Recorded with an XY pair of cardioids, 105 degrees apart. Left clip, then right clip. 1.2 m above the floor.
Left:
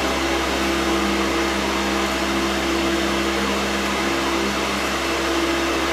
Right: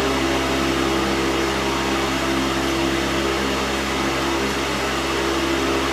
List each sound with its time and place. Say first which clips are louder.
0.0 s a fan: right 1 dB; 10° left, 1.3 m